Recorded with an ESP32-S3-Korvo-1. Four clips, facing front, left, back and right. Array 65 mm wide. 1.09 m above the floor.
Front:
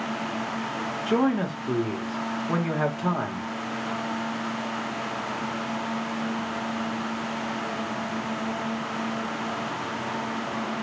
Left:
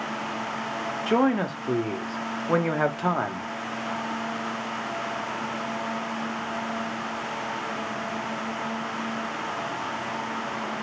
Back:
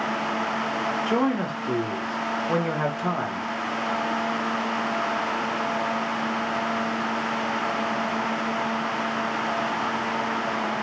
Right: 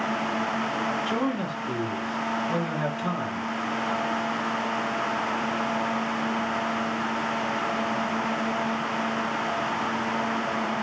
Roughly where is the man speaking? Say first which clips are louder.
Left 4 dB, front 3 dB; left.